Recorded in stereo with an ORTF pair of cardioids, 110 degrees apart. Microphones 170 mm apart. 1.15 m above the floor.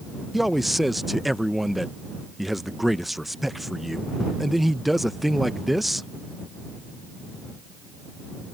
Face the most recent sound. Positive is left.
turn(degrees=0)